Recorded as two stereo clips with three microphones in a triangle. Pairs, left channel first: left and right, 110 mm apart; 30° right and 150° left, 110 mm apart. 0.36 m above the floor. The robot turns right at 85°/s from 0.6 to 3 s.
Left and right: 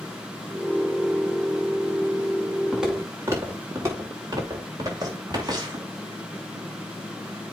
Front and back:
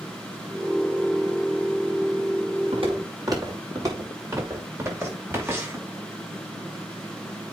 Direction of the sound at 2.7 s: 175° left.